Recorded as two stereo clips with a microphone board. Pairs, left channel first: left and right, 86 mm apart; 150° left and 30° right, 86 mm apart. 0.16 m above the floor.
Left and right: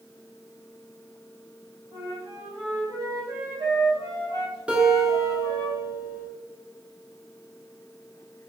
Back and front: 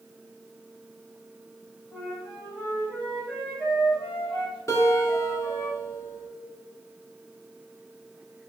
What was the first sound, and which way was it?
A flute, 105° right.